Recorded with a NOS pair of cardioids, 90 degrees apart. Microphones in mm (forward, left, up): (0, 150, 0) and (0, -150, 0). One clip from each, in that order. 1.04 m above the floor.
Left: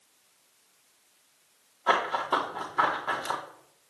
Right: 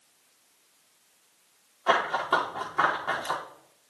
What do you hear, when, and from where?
1.9 s running footsteps: straight ahead, 4.5 m